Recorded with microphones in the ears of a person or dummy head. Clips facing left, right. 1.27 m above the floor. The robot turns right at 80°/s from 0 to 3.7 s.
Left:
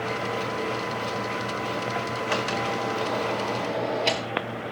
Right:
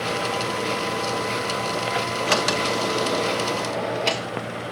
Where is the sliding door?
115° right, 1.0 m; by 4.3 s 5° left, 1.0 m.